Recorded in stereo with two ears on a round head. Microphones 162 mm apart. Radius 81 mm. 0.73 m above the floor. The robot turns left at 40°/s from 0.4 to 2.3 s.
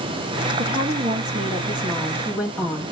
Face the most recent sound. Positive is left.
turn(degrees=-170)